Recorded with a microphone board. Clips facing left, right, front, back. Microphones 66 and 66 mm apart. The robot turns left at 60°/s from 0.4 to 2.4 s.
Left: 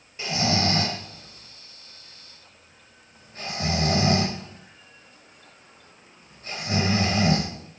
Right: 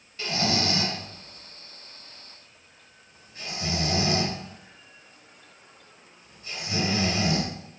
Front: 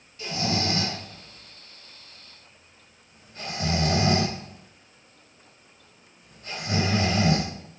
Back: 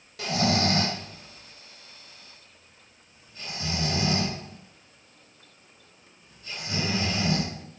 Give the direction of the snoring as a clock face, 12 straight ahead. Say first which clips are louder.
Left 2 dB, back 3 dB; 7 o'clock.